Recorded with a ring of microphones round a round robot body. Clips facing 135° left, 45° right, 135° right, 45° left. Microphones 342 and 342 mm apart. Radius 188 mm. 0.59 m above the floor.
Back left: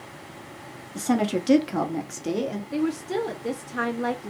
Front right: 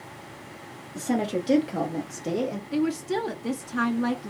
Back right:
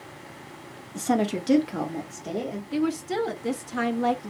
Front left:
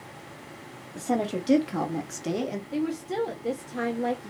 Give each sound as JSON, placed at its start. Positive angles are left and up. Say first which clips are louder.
{"t": 0.9, "sound": "a woman speaking", "louder": "back left 2 dB, back right 3 dB", "azimuth_deg": -165, "distance_m": 1.2}
{"t": 2.7, "sound": "a woman speaking", "louder": "even, back right 4 dB", "azimuth_deg": -115, "distance_m": 0.7}